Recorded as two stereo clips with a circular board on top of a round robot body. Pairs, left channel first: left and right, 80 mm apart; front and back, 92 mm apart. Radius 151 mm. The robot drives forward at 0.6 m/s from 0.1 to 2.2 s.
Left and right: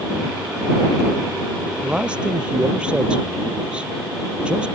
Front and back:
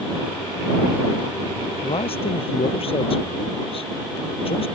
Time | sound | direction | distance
1.8 | a man speaking | 15° right | ?